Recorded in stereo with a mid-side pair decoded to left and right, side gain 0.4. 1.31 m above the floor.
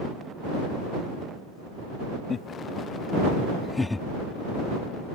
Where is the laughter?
55° left; by 4.0 s 10° left.